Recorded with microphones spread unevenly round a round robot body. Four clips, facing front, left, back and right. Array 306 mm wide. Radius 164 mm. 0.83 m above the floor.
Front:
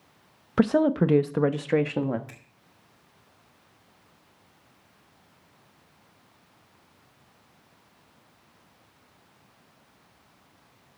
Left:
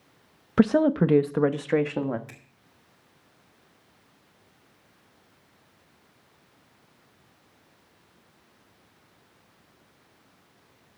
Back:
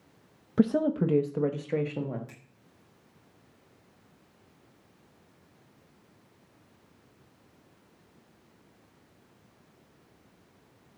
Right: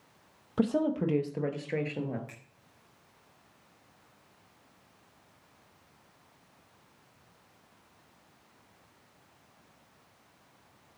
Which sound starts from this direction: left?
A woman speaking, at 0.6 s.